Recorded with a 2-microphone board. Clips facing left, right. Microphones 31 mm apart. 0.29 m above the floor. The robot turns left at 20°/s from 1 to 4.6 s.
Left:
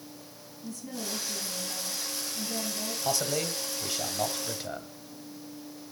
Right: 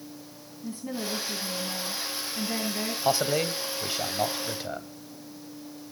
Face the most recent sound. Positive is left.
turn(degrees=-170)